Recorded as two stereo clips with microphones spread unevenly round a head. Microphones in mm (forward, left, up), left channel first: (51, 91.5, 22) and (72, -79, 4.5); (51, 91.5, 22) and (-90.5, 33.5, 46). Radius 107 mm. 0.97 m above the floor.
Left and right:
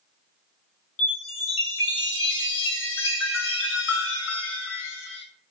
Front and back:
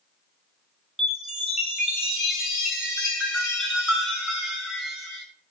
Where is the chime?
115° left, 6 m.